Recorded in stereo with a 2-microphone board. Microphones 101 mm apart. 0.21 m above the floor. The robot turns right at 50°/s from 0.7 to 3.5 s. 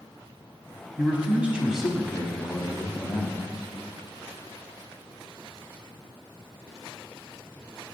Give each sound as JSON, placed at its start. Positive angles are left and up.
{"t": 1.0, "sound": "a man speaking", "side_deg": -20, "distance_m": 1.0}